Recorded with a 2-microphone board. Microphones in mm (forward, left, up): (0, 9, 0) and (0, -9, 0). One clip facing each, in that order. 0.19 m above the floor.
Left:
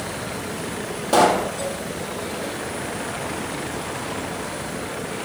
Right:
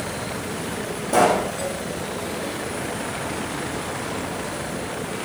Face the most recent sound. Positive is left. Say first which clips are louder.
# left 1 dB
turn(degrees=65)  # may be behind; listen again after turning